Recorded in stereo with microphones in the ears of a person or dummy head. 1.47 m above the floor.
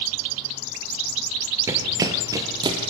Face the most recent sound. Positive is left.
turn(degrees=-25)  # may be behind; listen again after turning